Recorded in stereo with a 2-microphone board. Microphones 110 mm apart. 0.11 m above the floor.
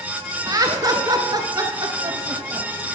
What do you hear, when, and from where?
0.5 s laughter: 35° right (ahead or behind), 1.3 m; by 2.7 s 30° right (ahead or behind), 1.9 m